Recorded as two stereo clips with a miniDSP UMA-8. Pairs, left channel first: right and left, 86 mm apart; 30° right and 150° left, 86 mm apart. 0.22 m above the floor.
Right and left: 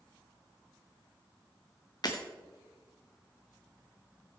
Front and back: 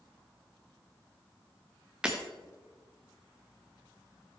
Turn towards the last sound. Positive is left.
turn(degrees=-130)